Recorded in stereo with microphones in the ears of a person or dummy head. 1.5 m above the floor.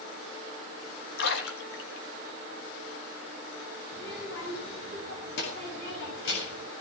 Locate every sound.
1.2 s a splash: 65° left (ahead or behind), 2.5 m
3.9 s a child speaking: 60° left (ahead or behind), 7 m